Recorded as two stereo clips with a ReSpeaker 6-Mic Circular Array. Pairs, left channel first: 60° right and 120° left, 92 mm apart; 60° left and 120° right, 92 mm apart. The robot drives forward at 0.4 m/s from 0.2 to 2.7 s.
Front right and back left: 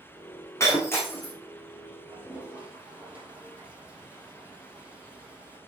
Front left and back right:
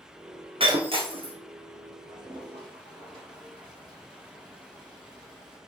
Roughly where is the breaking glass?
Behind right.